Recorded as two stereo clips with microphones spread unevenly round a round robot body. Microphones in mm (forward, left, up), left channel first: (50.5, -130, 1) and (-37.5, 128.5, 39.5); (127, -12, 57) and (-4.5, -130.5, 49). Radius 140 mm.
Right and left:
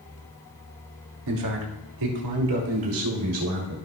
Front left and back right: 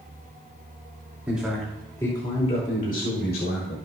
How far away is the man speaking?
About 2.5 m.